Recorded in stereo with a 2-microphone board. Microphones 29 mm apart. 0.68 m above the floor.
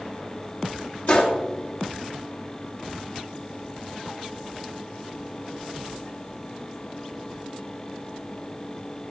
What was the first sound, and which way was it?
A gunshot, 65° left (ahead or behind).